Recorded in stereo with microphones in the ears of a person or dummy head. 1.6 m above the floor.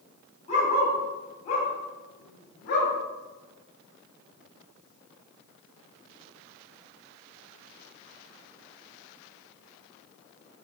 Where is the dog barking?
40° left (ahead or behind), 4 m; by 2.9 s 55° left (ahead or behind), 3 m.